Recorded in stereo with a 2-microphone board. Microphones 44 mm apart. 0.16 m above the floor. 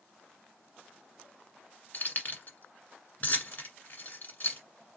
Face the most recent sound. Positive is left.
turn(degrees=40)  # may be behind; listen again after turning